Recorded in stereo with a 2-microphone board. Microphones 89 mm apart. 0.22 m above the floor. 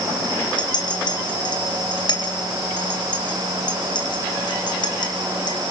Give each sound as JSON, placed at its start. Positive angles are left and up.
{"t": 0.6, "sound": "a clink", "side_deg": 55, "distance_m": 2.5}